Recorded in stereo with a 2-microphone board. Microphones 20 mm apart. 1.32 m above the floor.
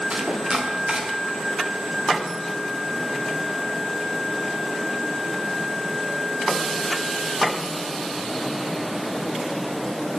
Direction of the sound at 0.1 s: 40° right (ahead or behind).